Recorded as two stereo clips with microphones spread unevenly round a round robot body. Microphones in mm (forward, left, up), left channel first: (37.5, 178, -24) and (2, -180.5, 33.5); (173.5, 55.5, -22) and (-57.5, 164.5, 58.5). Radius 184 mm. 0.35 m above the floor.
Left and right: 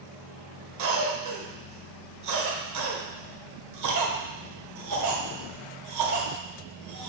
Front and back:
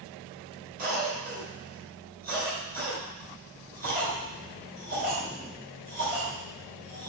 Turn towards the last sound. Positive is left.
turn(degrees=-135)